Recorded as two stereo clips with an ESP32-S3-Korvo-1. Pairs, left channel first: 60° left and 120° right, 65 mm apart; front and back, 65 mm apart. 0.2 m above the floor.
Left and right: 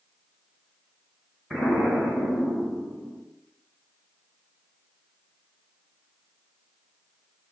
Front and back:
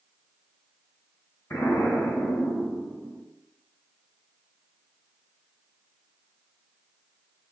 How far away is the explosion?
About 1.9 m.